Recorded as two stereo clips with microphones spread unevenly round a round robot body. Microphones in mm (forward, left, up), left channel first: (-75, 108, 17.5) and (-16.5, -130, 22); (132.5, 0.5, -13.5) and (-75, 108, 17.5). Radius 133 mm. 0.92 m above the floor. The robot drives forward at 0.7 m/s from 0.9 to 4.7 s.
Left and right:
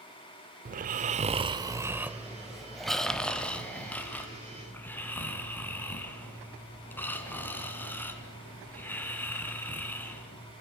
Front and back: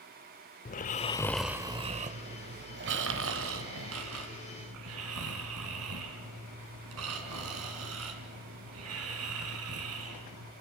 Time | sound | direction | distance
0.7 | snoring | 70° right | 0.6 m